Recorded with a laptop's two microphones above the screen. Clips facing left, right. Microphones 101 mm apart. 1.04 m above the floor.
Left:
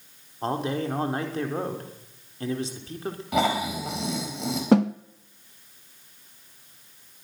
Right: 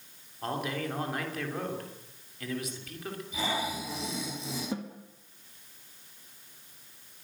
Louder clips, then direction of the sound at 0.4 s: Left 6 dB; 30° left (ahead or behind).